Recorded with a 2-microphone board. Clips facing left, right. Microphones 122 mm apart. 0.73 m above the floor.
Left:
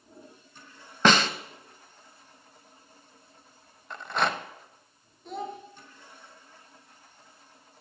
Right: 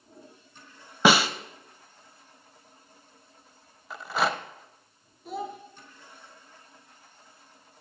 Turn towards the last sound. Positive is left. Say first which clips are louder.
# right 1 dB
turn(degrees=-5)  # may be behind; listen again after turning